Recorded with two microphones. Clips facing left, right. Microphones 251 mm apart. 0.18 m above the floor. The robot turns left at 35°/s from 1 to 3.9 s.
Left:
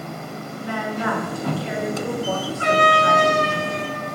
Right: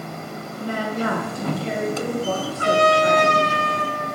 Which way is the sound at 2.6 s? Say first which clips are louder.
Right 3 dB; 35° left.